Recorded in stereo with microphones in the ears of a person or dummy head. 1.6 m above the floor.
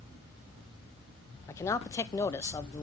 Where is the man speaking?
20° left (ahead or behind), 0.7 m.